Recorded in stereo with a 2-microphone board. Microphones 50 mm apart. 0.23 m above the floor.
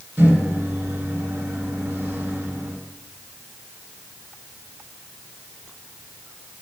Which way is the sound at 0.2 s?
55° right (ahead or behind).